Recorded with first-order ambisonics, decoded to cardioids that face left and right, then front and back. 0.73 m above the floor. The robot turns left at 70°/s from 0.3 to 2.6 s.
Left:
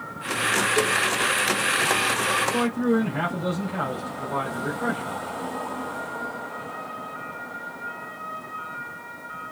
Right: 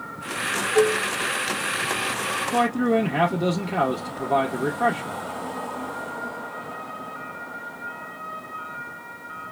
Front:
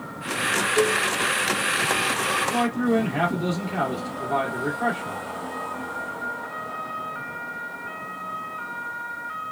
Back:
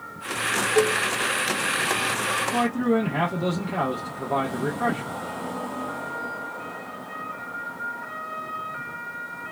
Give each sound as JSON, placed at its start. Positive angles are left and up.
{"t": 0.8, "sound": "dishes clattering", "azimuth_deg": -135, "distance_m": 2.0}
{"t": 2.5, "sound": "a man speaking", "azimuth_deg": -100, "distance_m": 1.2}